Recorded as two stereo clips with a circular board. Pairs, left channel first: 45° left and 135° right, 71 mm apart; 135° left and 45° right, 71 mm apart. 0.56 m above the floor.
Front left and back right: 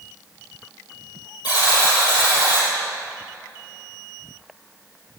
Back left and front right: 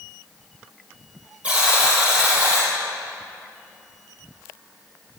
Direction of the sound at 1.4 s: 25° left.